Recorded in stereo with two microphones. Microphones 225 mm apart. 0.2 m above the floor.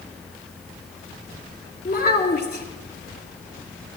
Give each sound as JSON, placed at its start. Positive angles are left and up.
{"t": 1.9, "sound": "a child speaking", "side_deg": 45, "distance_m": 1.8}